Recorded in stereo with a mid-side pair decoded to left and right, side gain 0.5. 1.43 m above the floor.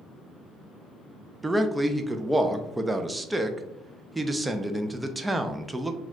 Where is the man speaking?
10° right, 0.6 m.